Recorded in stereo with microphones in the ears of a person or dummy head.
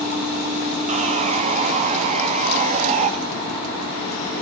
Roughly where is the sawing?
Right.